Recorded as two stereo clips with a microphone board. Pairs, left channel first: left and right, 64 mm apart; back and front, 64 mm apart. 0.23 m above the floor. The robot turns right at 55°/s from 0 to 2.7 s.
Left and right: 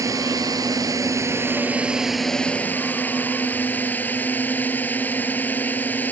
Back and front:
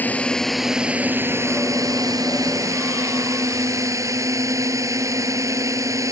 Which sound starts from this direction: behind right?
A drone, at 0.0 s.